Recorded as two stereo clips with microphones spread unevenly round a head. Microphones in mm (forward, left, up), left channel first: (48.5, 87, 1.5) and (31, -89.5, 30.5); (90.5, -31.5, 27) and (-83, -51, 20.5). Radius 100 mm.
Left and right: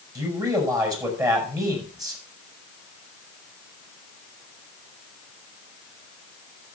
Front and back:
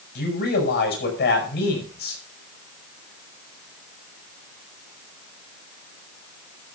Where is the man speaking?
25° right, 7 m.